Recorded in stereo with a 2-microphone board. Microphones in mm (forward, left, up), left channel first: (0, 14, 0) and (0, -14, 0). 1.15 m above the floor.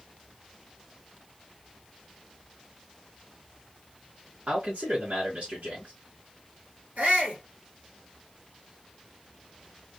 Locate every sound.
4.5 s a man speaking: 85° right, 1.9 m
7.0 s a shout: 80° right, 2 m